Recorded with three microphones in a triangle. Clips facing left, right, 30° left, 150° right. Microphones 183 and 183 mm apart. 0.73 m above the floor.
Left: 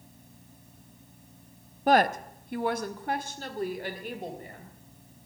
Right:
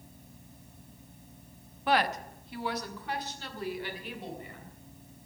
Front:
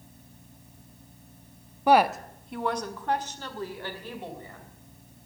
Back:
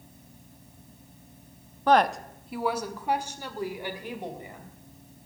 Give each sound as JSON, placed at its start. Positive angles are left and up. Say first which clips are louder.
{"t": 1.9, "sound": "a woman speaking", "louder": "left 6 dB, front 1 dB", "azimuth_deg": 100, "distance_m": 0.7}